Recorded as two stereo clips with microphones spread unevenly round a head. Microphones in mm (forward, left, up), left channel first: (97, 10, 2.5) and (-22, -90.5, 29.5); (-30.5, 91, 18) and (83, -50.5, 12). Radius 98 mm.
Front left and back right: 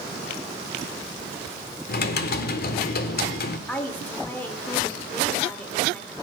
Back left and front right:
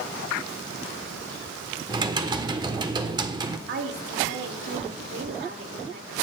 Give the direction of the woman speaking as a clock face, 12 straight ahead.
1 o'clock.